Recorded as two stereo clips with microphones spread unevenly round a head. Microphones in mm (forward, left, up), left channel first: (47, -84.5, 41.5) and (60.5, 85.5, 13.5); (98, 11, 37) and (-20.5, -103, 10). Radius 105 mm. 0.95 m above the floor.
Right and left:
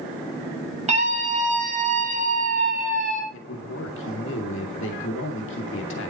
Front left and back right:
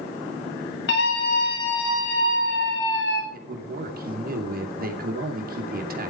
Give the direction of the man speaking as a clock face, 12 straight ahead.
4 o'clock.